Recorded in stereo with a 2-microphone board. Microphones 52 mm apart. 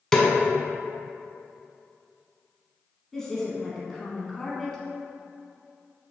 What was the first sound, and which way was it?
A snare drum, 10° left (ahead or behind).